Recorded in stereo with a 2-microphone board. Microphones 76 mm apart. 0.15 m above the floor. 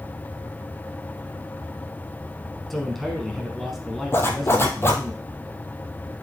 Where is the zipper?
30° left (ahead or behind), 1.4 m.